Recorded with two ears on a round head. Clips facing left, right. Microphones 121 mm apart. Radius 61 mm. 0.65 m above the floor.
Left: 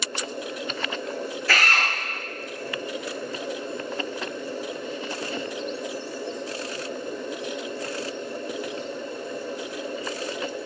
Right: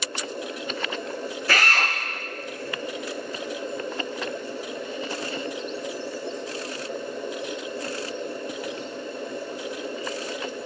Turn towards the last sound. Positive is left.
turn(degrees=-15)  # may be behind; listen again after turning